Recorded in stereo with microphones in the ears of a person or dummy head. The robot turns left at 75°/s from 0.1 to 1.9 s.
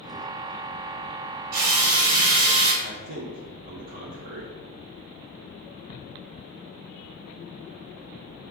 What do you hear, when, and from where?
1.5 s a drill: 85° right, 1.6 m; by 2.7 s 60° right (ahead or behind), 1.6 m
2.8 s a man speaking: 45° right (ahead or behind), 0.8 m